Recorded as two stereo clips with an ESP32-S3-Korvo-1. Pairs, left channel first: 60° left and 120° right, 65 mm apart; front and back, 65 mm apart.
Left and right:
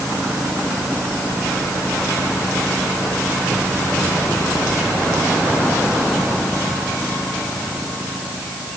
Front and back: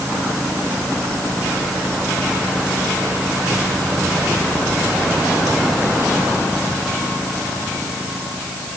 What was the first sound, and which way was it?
Only background noise.